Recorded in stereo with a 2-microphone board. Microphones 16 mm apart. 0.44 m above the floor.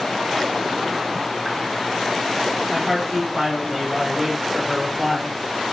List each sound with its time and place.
2.7 s a man speaking: 10° left (ahead or behind), 1.3 m; by 5.3 s 20° right (ahead or behind), 1.6 m